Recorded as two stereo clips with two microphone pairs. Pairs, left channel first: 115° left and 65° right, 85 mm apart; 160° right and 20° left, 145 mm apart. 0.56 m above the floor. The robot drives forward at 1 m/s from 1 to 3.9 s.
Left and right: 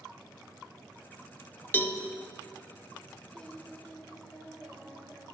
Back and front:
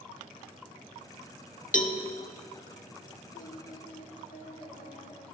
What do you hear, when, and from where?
1.7 s a cowbell: 175° left, 0.7 m
3.3 s singing: 165° right, 0.9 m; by 5.2 s 170° right, 1.4 m